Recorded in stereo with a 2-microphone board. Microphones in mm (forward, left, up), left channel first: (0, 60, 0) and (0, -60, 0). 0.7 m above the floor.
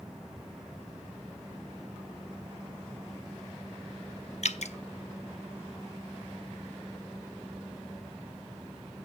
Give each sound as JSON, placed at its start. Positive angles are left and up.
{"t": 4.4, "sound": "dripping", "side_deg": 70, "distance_m": 0.6}